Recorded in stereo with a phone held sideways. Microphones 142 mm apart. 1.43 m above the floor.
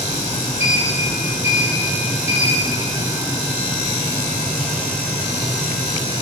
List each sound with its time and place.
0.6 s a sliding door: 20° right (ahead or behind), 6.5 m